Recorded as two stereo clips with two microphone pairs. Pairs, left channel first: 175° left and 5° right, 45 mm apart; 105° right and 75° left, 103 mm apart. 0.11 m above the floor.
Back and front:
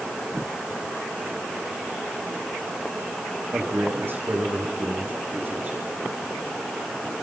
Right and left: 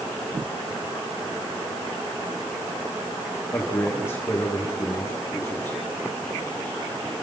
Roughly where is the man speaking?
Ahead right.